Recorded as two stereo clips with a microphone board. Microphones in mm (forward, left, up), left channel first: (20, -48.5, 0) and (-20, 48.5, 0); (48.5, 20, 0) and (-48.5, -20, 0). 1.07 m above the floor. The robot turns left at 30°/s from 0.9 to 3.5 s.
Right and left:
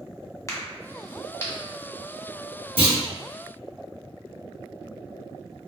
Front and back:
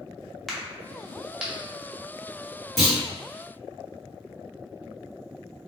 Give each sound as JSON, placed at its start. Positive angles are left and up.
{"t": 0.5, "sound": "a crack", "azimuth_deg": -60, "distance_m": 0.6}
{"t": 2.8, "sound": "a clunk", "azimuth_deg": 110, "distance_m": 1.2}